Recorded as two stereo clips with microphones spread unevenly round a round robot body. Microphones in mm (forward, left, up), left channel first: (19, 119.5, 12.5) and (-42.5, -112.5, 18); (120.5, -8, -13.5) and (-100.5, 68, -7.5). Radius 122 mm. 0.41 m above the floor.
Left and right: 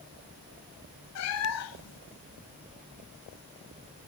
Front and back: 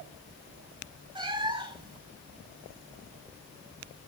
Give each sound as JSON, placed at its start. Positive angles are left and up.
{"t": 1.1, "sound": "a cat meowing", "azimuth_deg": 90, "distance_m": 1.6}